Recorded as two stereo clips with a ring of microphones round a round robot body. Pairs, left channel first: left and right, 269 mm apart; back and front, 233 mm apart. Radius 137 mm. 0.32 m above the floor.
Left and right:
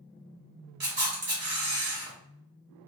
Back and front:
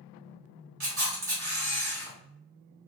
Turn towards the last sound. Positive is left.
turn(degrees=-45)